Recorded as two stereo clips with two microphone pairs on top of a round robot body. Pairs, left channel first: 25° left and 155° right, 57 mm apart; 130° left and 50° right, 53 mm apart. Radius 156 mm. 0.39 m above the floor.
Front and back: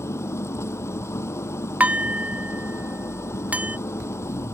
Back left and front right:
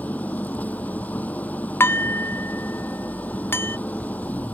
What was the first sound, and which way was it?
An engine running, 70° left.